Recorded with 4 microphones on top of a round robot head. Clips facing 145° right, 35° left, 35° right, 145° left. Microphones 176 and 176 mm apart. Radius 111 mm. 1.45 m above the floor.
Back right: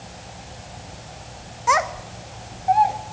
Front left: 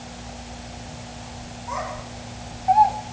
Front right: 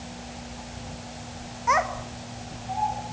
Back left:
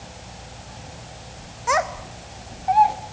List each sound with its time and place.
1.7 s a child speaking: 155° right, 1.1 m; by 3.0 s 145° left, 1.4 m